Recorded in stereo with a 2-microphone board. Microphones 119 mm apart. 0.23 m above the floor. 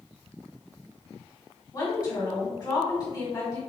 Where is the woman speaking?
35° left (ahead or behind), 1.5 m.